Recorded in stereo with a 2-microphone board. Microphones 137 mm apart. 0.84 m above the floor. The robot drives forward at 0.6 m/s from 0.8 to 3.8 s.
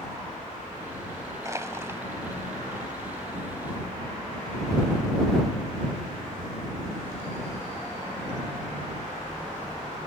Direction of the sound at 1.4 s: 25° right (ahead or behind).